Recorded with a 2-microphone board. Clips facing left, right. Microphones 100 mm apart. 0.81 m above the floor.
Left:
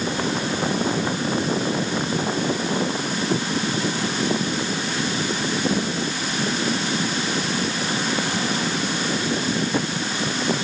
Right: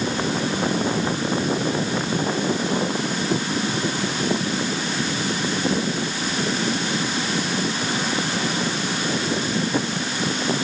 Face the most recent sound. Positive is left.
No sound to turn to.